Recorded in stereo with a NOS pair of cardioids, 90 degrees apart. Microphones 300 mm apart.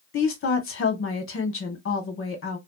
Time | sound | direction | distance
0.1 | a woman speaking | 45° left | 1.2 m